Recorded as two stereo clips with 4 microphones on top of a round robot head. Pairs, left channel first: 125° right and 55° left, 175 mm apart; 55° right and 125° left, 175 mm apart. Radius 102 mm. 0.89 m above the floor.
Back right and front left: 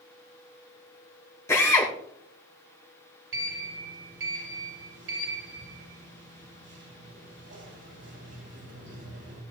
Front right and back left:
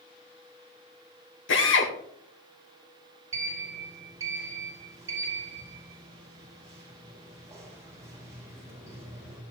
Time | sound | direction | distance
1.5 | a drill | 50° right | 2.5 m
3.3 | a sliding door | 55° left | 4 m